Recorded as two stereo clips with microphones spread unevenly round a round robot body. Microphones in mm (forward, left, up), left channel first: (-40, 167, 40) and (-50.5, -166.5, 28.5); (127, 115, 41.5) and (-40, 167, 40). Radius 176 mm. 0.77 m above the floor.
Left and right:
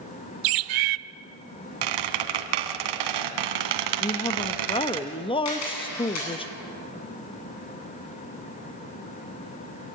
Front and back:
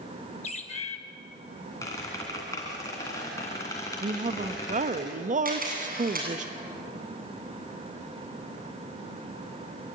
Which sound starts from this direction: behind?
A woman speaking, at 4.0 s.